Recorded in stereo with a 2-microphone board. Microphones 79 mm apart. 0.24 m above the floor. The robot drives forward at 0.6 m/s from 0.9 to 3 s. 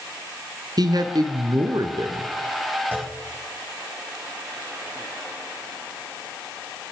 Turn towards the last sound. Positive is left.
turn(degrees=-25)  # may be behind; listen again after turning